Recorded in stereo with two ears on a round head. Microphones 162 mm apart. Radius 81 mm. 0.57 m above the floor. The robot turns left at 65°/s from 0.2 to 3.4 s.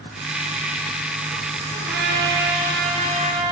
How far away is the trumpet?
About 5.5 m.